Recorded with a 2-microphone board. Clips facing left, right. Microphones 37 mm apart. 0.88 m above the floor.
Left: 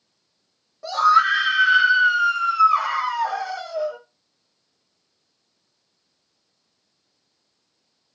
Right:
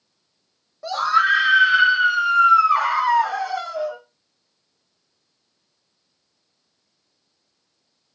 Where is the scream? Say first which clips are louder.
Left 2 dB; 5° right (ahead or behind), 0.9 m; by 4.0 s 40° right (ahead or behind), 1.6 m.